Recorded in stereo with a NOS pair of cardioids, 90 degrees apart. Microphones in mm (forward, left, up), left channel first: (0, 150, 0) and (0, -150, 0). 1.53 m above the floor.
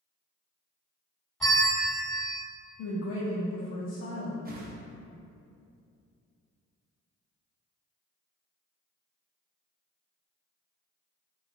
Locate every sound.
1.4 s a bell: straight ahead, 1.2 m
2.8 s a woman speaking: 60° left, 0.7 m
4.5 s a whoosh: 30° right, 0.7 m